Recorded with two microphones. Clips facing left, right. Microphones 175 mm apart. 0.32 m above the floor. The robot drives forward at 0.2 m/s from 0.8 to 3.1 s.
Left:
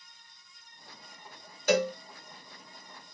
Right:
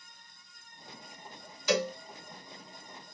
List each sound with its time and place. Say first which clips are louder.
1.7 s a cowbell: left 3 dB; 50° left (ahead or behind), 1.1 m